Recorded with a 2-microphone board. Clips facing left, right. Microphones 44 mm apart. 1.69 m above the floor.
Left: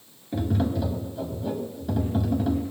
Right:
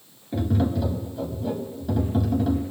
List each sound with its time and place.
0.3 s tapping: centre (ahead or behind), 1.1 m